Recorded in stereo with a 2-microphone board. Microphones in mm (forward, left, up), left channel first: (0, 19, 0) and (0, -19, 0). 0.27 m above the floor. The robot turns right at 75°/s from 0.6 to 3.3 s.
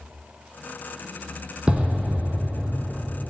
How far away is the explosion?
About 1.0 m.